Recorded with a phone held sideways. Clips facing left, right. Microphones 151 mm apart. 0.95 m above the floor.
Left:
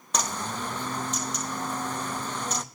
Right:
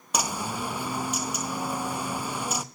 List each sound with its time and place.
0.1 s a bird: 10° right (ahead or behind), 0.6 m